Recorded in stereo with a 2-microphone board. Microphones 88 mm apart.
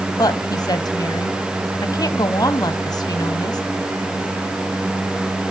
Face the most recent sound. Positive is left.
turn(degrees=50)  # may be behind; listen again after turning